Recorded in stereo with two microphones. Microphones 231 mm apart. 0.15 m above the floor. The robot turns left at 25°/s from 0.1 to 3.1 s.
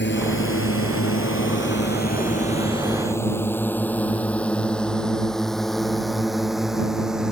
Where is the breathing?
I don't hear breathing.